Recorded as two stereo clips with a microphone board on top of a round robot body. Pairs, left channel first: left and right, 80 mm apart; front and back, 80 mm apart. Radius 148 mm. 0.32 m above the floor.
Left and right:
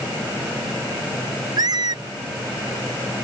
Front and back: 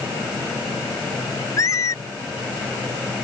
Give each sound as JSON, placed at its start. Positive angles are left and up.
{"t": 1.6, "sound": "a squeak", "azimuth_deg": -50}